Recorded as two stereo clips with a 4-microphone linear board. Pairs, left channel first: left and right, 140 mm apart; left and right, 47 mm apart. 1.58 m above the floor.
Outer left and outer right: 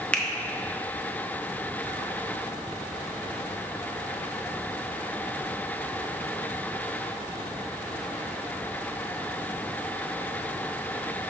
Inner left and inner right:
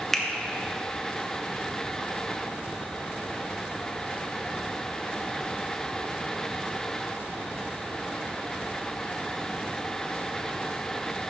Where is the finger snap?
10° left (ahead or behind), 0.8 m.